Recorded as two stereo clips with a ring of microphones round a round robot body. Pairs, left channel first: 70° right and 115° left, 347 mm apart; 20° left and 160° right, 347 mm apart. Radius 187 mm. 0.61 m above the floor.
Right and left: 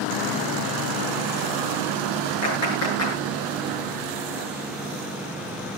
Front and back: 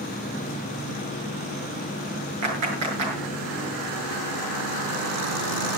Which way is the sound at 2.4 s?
115° right.